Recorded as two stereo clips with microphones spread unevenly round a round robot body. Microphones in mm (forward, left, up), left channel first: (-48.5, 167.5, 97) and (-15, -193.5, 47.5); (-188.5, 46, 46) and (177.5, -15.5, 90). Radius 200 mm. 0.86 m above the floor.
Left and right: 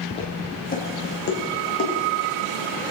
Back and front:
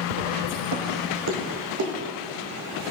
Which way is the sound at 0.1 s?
25° left.